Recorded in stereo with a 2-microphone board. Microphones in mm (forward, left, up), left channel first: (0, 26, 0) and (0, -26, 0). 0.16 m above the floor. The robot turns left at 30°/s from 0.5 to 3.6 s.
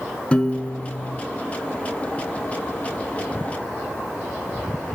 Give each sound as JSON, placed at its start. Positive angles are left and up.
{"t": 0.3, "sound": "a piano", "side_deg": 20, "distance_m": 0.5}